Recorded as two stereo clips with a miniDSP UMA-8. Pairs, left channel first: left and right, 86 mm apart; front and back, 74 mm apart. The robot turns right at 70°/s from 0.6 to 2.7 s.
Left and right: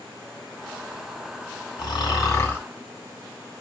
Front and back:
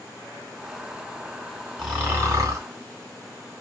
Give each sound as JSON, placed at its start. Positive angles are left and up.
{"t": 1.8, "sound": "snoring", "azimuth_deg": 100, "distance_m": 3.0}